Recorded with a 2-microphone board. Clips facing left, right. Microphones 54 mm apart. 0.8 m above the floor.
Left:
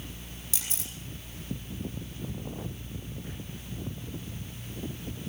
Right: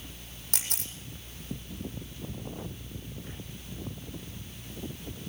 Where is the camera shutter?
60° right (ahead or behind), 8 m.